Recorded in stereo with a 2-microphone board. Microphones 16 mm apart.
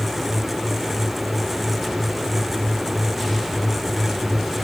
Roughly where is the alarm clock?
No alarm clock in this recording.